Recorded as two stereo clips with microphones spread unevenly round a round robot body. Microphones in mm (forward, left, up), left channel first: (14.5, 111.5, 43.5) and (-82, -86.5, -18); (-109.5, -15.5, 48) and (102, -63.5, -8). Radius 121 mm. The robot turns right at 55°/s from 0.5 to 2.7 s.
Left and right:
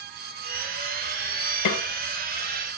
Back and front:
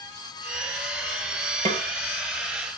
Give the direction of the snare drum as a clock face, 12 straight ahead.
10 o'clock.